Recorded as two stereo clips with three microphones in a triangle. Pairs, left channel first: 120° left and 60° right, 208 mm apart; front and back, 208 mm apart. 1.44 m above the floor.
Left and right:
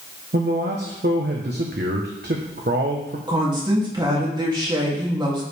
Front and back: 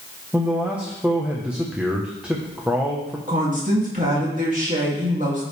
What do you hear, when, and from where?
0.3 s a man speaking: 95° right, 1.2 m
3.3 s a woman speaking: 130° right, 3 m